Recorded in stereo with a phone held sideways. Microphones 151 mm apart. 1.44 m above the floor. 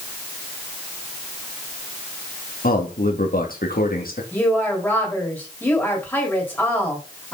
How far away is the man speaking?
About 2 m.